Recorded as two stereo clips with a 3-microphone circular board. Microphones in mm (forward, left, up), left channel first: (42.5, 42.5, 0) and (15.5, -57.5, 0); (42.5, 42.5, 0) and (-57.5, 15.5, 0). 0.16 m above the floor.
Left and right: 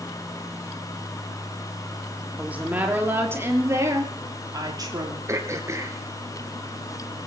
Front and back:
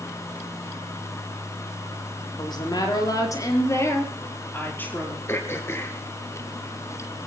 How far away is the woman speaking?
About 4.5 m.